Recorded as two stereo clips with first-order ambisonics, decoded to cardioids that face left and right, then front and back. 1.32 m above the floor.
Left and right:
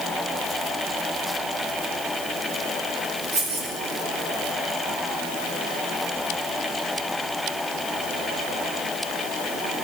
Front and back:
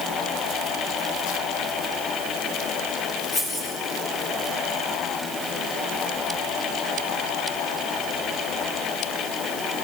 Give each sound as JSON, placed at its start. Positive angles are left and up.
{"t": 3.3, "sound": "keys jangling", "azimuth_deg": -60, "distance_m": 3.0}